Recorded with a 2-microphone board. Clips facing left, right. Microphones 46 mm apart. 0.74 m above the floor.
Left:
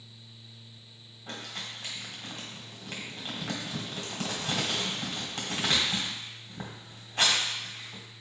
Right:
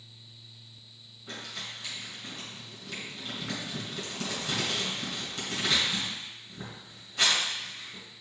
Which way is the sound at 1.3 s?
50° left (ahead or behind).